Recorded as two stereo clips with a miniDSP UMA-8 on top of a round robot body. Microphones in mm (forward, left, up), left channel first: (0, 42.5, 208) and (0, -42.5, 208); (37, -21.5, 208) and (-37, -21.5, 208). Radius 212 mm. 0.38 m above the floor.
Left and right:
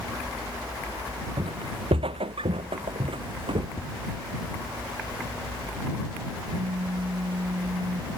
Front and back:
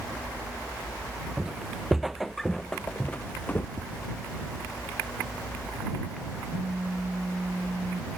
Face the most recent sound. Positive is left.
turn(degrees=-115)